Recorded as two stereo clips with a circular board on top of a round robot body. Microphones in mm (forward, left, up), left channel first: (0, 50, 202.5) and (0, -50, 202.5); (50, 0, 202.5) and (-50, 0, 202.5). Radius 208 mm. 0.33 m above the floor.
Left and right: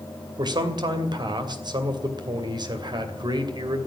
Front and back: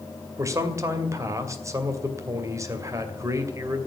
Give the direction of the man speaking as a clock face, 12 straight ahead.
4 o'clock.